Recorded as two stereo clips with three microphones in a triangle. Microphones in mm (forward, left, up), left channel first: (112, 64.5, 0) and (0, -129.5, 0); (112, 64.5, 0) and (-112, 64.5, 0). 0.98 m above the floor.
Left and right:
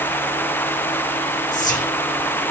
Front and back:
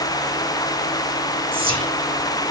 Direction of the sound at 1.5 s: 115° left.